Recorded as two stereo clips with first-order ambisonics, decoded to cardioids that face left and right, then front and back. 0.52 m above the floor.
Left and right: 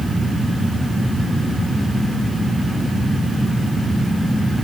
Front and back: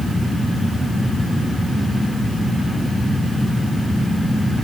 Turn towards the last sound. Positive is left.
No sound to turn to.